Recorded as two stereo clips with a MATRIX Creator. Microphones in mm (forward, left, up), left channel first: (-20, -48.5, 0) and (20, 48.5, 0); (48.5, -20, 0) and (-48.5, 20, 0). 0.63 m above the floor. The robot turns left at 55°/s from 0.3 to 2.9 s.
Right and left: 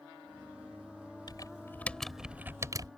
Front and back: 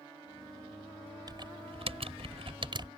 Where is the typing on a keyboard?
155° right; by 2.9 s 115° left.